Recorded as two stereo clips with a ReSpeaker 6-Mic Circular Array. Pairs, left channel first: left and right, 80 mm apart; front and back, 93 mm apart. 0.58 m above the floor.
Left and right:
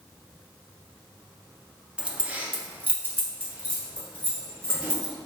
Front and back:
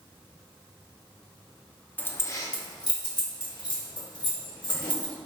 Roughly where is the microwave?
No microwave in this recording.